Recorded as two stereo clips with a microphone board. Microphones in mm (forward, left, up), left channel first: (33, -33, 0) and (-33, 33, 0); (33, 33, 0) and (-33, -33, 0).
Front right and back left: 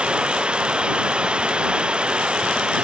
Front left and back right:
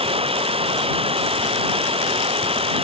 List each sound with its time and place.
0.0 s running water: 145° right